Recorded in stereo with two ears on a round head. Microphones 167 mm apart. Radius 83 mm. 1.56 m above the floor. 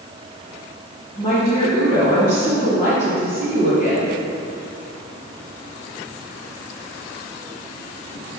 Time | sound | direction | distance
1.2 | a woman speaking | 40° left (ahead or behind) | 2 m